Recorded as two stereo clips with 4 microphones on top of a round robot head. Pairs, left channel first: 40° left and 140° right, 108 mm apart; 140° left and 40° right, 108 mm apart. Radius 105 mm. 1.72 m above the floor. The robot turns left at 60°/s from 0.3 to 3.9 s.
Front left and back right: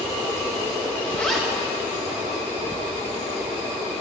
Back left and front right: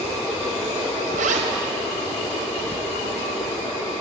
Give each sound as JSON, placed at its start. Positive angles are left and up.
{"t": 1.1, "sound": "a zipper", "azimuth_deg": -35, "distance_m": 0.8}